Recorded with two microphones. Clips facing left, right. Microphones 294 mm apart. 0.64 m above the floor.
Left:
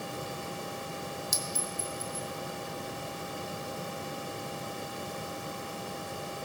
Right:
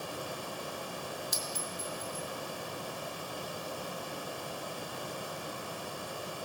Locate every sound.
1.3 s a clink: 50° left (ahead or behind), 1.0 m